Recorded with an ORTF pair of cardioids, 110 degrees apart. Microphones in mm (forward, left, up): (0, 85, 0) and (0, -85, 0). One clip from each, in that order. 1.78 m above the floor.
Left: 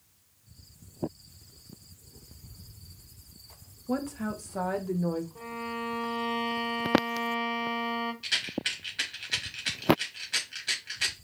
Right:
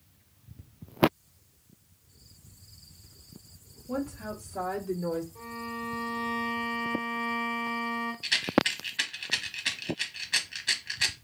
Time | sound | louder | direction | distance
3.9 | a woman speaking | left 2 dB | 45° left | 1.5 m
5.3 | a violin | left 2 dB | 15° left | 2.0 m
8.2 | a rattle | right 6 dB | 15° right | 1.2 m